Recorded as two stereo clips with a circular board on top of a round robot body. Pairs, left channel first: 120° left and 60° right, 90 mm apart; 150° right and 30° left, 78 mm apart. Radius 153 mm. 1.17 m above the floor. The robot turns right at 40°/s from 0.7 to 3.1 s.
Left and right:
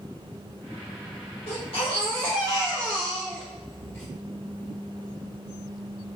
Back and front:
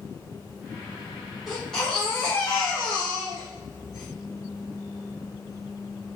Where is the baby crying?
120° left, 0.9 m; by 4.1 s 175° right, 0.9 m.